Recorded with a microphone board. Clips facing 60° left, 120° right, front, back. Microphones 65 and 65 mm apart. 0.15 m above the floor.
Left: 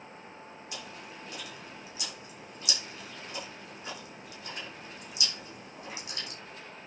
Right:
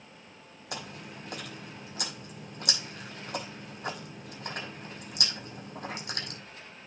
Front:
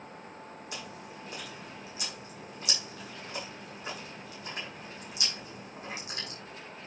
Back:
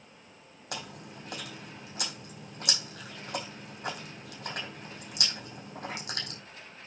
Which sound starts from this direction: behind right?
Chewing, at 0.7 s.